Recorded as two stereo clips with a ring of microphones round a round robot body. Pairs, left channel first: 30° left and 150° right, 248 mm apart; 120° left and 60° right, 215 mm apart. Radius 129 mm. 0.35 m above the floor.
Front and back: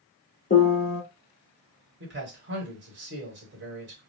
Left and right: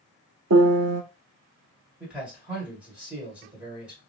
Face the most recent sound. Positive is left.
turn(degrees=-140)